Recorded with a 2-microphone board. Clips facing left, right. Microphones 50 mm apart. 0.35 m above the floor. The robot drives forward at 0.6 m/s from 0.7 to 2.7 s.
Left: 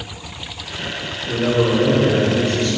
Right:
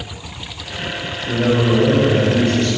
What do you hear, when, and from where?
1.3 s a man speaking: 55° right (ahead or behind), 1.9 m